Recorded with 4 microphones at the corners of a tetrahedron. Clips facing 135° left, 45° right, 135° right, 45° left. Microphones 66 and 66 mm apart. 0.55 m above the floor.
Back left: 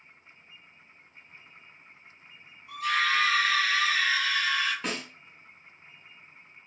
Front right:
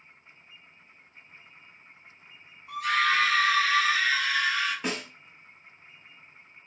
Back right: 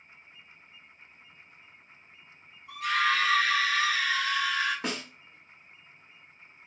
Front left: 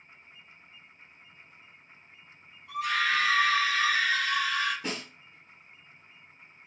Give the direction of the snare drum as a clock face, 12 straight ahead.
4 o'clock.